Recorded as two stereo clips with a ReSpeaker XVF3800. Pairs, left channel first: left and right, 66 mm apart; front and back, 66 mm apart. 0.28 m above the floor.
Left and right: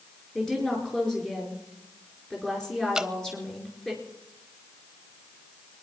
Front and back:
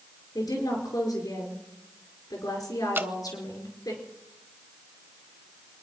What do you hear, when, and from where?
0.3 s a woman speaking: 10° left, 4.5 m
3.0 s dripping: 160° right, 0.6 m